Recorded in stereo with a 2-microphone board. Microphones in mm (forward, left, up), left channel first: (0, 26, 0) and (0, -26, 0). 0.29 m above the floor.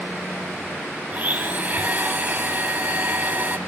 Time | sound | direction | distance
1.1 | a blender | 35° right (ahead or behind) | 1.8 m